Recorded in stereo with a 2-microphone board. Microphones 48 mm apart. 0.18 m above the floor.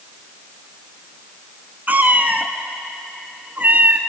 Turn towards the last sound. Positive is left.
turn(degrees=-40)  # may be behind; listen again after turning